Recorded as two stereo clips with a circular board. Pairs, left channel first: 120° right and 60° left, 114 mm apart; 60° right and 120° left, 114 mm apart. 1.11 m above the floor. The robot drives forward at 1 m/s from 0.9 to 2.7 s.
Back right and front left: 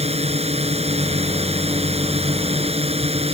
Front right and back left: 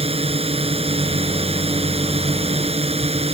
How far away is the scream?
No scream in this recording.